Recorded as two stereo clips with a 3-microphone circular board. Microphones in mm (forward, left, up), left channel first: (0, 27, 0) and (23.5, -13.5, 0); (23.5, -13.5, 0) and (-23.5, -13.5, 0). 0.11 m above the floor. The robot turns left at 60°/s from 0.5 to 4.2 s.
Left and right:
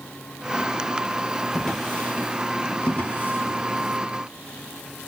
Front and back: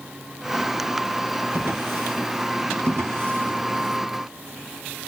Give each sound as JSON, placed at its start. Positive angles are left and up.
{"t": 1.5, "sound": "a drawer", "azimuth_deg": -150, "distance_m": 1.5}
{"t": 2.9, "sound": "a drawer", "azimuth_deg": 180, "distance_m": 2.5}